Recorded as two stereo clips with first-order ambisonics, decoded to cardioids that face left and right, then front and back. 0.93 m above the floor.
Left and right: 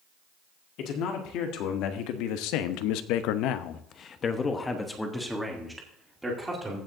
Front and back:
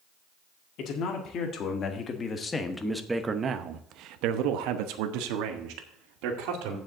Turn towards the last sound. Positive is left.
turn(degrees=-170)